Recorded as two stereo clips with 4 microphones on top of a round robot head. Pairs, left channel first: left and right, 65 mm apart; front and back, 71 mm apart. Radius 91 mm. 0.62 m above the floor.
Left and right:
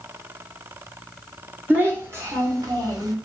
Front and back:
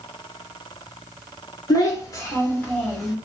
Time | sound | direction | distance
1.7 | a child speaking | 30° right | 1.9 m